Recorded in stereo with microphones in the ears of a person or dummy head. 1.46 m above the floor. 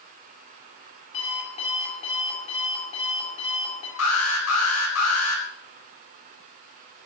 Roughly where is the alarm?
Left.